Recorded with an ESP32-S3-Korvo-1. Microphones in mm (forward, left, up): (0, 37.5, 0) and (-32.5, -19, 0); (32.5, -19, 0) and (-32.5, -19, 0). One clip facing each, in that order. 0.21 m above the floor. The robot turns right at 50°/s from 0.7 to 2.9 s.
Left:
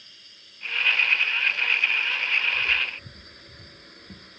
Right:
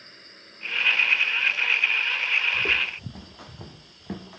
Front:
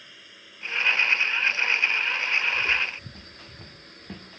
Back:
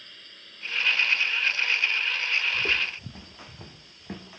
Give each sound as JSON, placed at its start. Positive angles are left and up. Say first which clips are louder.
{"t": 0.0, "sound": "a drone", "louder": "right 5 dB, front 1 dB", "azimuth_deg": -80}
{"t": 2.5, "sound": "footsteps", "louder": "even, front 2 dB", "azimuth_deg": -135}